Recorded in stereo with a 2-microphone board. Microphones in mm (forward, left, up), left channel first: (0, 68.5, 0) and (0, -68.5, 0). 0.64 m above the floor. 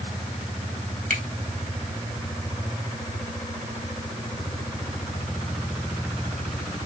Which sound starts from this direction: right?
A finger snap, at 1.1 s.